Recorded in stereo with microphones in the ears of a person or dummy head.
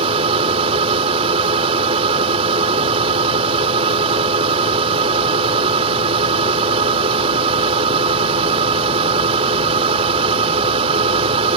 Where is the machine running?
30° right (ahead or behind).